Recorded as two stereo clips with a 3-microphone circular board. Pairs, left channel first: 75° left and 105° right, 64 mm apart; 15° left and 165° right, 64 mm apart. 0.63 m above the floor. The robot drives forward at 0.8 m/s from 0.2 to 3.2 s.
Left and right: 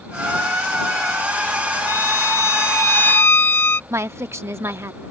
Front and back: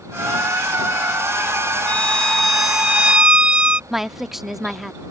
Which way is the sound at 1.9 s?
80° left.